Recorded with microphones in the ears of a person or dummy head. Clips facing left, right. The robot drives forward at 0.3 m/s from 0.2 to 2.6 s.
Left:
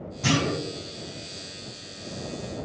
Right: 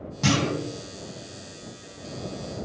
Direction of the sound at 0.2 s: 70° right (ahead or behind).